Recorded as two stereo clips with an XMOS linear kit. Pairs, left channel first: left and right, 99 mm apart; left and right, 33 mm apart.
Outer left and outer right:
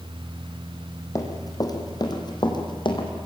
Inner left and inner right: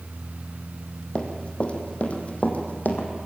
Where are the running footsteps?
35° left (ahead or behind), 2.5 m; by 3.1 s 55° left (ahead or behind), 3 m.